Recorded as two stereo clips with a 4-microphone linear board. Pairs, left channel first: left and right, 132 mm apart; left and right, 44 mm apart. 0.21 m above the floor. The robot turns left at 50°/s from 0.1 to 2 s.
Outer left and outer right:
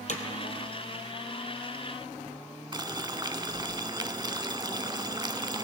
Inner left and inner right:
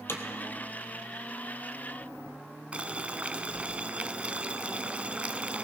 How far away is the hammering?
About 1.6 m.